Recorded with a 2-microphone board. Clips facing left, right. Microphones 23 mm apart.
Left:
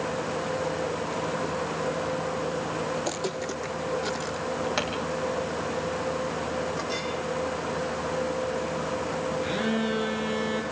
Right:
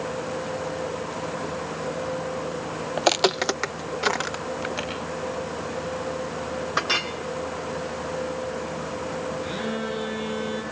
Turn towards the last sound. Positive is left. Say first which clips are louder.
# left 2 dB
turn(degrees=20)  # may be behind; listen again after turning